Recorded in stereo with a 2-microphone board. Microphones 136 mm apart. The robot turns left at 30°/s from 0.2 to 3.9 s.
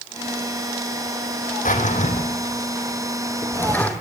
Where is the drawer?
75° left (ahead or behind), 3 m; by 3.9 s 10° left (ahead or behind), 3 m.